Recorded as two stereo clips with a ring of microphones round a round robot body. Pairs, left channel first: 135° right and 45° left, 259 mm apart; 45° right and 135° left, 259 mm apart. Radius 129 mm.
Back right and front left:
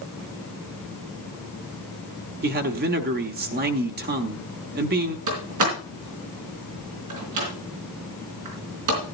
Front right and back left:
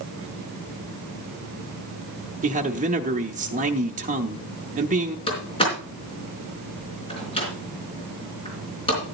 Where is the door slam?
25° left, 4 m.